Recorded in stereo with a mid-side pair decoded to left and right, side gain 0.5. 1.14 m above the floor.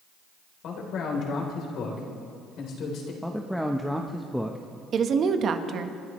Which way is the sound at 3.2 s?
Straight ahead.